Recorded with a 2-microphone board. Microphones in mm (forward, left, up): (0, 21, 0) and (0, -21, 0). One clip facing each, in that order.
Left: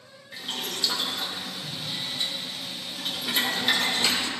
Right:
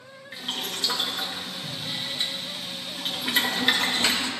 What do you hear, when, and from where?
0.3 s boiling: 30° right (ahead or behind), 1.0 m